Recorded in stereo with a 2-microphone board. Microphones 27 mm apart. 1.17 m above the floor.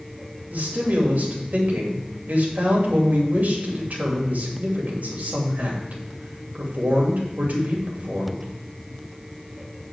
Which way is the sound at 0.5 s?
75° right (ahead or behind).